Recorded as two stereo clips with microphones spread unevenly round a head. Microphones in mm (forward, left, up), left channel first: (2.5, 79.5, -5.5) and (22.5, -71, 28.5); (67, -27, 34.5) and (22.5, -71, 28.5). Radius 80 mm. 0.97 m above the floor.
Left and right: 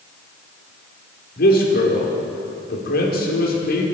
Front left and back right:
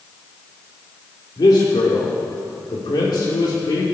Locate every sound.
1.4 s a man speaking: 75° left, 2.5 m